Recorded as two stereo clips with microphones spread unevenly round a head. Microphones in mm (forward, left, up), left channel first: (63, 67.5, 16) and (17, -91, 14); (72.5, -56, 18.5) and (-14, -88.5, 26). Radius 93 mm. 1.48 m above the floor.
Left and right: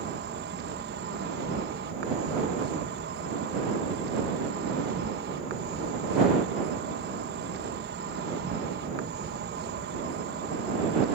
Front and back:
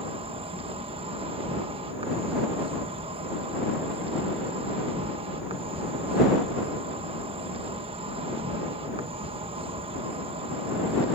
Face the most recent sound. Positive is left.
turn(degrees=-150)